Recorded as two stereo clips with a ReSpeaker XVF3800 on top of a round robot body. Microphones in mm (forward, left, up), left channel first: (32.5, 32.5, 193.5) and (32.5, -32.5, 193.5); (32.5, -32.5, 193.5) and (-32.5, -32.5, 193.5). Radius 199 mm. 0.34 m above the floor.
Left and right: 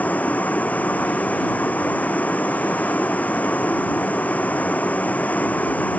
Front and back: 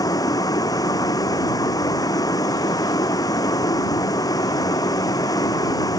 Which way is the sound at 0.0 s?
20° left.